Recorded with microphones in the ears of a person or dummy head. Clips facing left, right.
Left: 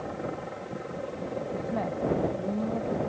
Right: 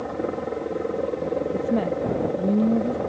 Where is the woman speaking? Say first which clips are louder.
Right 8 dB; 40° right (ahead or behind).